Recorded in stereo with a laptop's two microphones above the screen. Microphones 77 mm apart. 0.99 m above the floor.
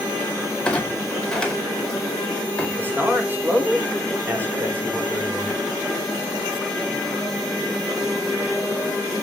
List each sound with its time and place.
0.7 s a clunk: 10° left (ahead or behind), 4.5 m
2.8 s a man speaking: 25° right (ahead or behind), 4.5 m